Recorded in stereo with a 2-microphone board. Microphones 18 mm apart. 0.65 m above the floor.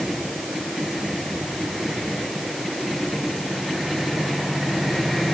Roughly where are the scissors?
I don't hear scissors.